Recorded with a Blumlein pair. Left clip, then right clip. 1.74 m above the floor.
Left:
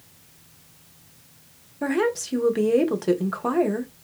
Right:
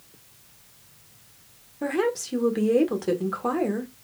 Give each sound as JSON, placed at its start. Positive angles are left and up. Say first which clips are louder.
{"t": 1.8, "sound": "a woman speaking", "louder": "left 2 dB", "azimuth_deg": 5, "distance_m": 0.5}